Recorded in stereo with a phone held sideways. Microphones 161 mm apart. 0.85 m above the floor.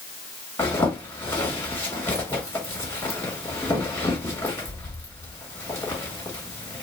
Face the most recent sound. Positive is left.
turn(degrees=15)  # may be behind; listen again after turning